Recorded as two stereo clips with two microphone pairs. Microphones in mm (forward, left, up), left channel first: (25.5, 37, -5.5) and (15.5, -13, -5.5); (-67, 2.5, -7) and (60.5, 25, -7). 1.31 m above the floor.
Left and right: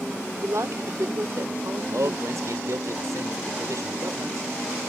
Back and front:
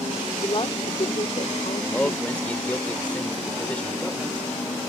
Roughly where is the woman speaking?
Behind right.